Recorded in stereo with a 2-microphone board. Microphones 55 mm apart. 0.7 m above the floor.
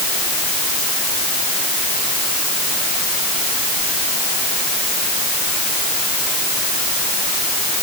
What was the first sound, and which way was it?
Only background noise.